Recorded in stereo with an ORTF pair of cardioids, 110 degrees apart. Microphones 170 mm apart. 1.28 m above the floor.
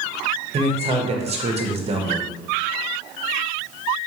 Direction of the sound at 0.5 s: 35° right.